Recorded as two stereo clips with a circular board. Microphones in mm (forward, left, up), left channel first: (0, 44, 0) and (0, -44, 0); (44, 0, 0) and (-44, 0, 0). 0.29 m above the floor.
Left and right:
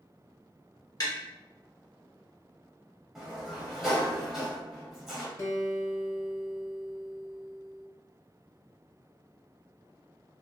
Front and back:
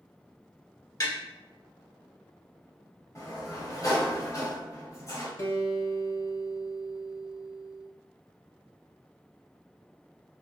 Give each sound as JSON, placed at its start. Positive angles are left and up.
{"t": 1.0, "sound": "tapping", "azimuth_deg": 45, "distance_m": 1.6}
{"t": 3.1, "sound": "a sliding door", "azimuth_deg": -5, "distance_m": 1.4}
{"t": 5.4, "sound": "a guitar", "azimuth_deg": 45, "distance_m": 0.9}